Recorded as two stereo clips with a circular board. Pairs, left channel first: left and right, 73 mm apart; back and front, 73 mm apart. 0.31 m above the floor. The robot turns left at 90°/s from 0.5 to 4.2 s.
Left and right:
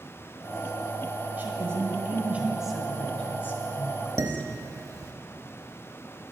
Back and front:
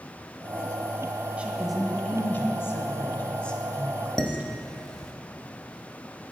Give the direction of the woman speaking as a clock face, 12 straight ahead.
2 o'clock.